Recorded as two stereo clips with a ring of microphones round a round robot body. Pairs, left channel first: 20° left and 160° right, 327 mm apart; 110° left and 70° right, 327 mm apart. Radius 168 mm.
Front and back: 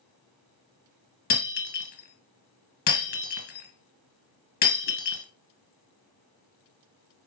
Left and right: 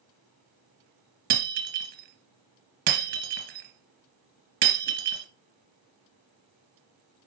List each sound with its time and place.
1.3 s breaking glass: 20° right, 1.0 m